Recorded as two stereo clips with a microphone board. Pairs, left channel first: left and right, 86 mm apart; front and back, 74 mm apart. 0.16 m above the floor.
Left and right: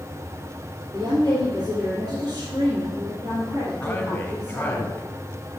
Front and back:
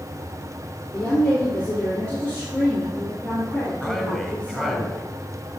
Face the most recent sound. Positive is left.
turn(degrees=100)